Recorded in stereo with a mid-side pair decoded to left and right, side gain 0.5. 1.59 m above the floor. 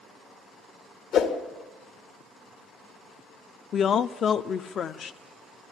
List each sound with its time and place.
1.1 s a whoosh: 65° left, 1.3 m
3.7 s a woman speaking: 50° left, 0.5 m